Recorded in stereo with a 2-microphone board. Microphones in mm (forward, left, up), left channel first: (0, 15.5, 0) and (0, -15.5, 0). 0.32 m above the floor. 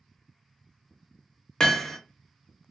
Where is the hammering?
25° left (ahead or behind), 0.7 m.